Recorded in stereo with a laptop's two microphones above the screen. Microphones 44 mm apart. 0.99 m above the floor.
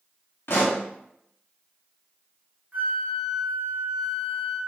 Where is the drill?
No drill in this recording.